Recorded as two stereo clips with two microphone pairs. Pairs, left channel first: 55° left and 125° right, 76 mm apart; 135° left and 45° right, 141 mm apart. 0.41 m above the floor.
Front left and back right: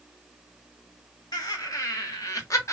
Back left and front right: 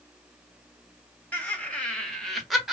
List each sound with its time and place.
1.3 s laughter: 55° left, 1.8 m; by 2.7 s 35° left, 1.3 m